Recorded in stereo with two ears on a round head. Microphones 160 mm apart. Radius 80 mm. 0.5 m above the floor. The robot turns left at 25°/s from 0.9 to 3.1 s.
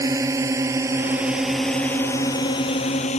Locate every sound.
0.0 s a drone: 20° right (ahead or behind); by 3.2 s 40° left (ahead or behind)